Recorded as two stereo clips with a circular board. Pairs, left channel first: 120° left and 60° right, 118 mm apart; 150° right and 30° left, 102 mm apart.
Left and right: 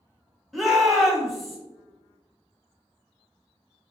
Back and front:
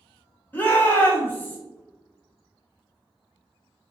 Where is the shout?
150° right, 1.0 m.